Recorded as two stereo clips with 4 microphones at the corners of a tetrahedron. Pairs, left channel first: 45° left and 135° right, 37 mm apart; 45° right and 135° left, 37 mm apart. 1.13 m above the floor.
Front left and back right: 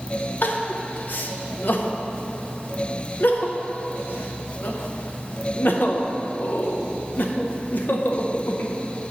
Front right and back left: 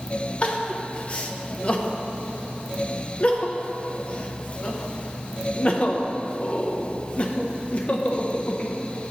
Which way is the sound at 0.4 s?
10° left.